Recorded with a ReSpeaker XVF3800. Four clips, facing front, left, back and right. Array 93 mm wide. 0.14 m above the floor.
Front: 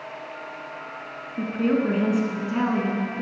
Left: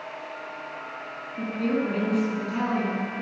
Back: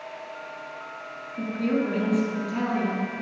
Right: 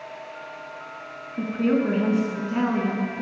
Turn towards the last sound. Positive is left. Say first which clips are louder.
# right 4 dB, front 3 dB
turn(degrees=-35)